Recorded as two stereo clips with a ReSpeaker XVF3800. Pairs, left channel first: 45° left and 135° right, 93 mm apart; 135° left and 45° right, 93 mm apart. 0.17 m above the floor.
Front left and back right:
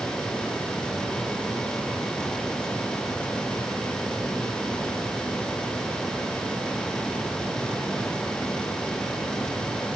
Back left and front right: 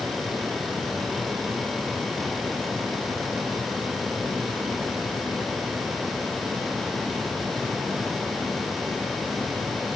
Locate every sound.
Only background noise.